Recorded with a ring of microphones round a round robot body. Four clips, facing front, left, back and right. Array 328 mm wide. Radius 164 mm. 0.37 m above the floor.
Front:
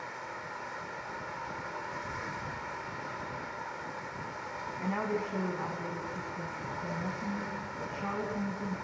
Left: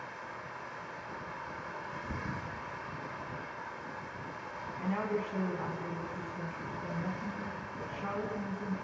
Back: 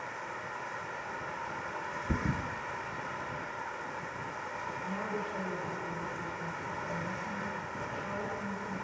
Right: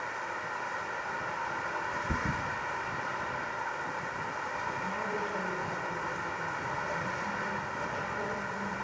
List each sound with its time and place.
0.0 s running water: 95° right, 0.8 m
2.1 s a thud: 160° right, 1.4 m
4.8 s a woman speaking: 30° left, 4 m